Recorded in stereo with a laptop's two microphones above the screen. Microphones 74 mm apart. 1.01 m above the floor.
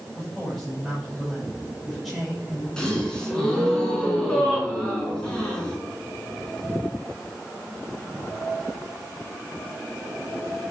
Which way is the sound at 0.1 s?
5° left (ahead or behind).